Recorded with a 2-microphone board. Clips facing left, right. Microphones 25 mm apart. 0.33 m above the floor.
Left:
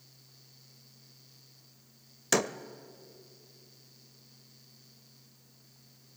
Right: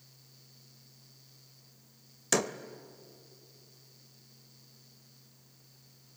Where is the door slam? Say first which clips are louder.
Left 1 dB; 5° left (ahead or behind), 0.6 m.